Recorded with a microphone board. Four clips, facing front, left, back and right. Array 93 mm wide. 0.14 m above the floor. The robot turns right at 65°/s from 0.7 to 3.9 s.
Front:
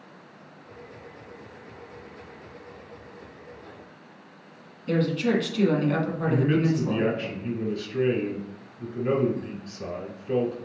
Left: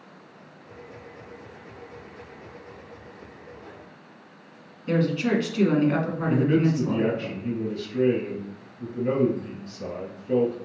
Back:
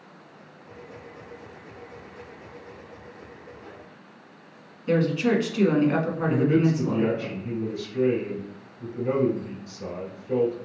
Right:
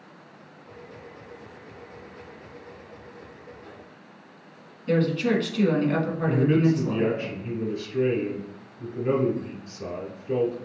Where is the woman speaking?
145° left, 1.1 m.